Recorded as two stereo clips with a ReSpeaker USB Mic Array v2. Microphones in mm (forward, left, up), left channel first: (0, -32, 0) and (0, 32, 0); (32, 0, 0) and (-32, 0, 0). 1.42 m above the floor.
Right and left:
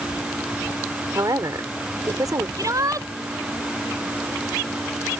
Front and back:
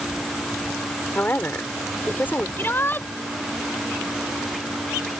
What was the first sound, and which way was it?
A woman speaking, 60° left.